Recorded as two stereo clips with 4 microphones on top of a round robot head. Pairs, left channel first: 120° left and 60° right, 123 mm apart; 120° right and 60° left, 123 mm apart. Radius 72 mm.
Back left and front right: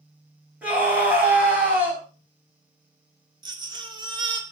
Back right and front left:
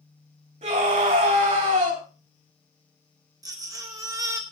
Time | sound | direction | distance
0.6 | a scream | 20° left | 5 m
3.4 | a baby crying | 5° right | 1.9 m